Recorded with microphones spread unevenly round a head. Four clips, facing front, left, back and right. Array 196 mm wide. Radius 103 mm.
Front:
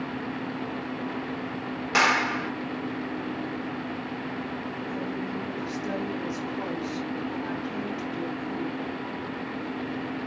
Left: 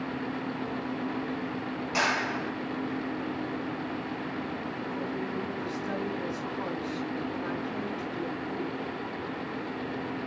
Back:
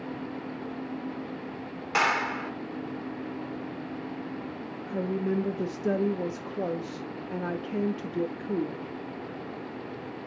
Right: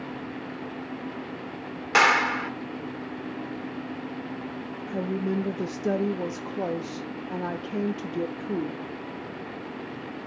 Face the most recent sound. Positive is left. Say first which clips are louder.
# right 7 dB, back 6 dB
turn(degrees=-135)